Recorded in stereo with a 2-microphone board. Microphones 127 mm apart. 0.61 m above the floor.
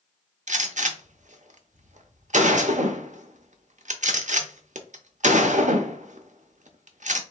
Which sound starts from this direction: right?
A gunshot, at 0.5 s.